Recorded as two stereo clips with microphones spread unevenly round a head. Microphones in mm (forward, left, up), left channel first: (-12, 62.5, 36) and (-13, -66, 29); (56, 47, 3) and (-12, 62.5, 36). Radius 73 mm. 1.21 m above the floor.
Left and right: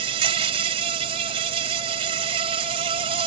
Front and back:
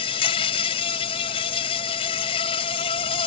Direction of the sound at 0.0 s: 40° right.